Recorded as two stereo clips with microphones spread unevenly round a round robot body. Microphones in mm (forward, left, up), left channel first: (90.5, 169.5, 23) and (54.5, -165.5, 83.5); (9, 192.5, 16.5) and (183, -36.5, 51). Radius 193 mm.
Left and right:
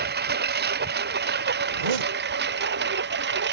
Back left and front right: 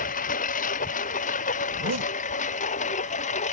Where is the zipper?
105° right.